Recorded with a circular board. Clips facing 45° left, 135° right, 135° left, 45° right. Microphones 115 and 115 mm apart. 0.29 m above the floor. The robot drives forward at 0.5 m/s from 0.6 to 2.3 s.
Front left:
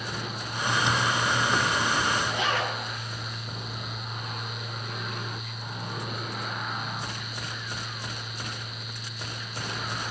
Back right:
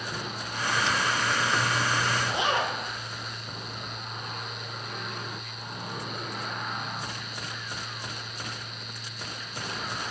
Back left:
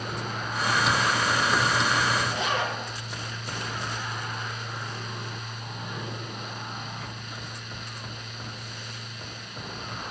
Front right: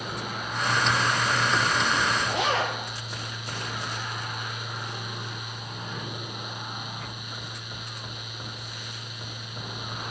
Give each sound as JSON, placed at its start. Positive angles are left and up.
{"t": 2.3, "sound": "a zipper", "azimuth_deg": -65, "distance_m": 8.0}